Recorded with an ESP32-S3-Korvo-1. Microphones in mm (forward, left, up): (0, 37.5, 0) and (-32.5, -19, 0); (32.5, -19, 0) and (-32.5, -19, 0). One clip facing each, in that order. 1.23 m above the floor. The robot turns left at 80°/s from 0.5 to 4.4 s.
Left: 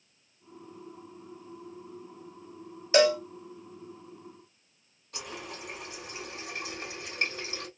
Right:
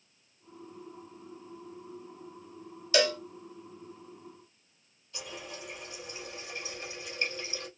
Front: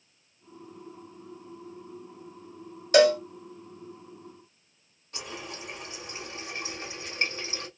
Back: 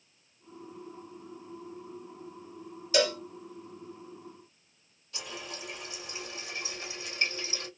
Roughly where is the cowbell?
Ahead.